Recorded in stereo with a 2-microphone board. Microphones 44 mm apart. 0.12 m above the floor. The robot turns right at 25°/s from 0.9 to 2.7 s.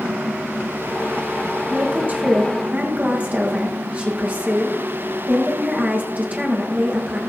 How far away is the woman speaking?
About 5 m.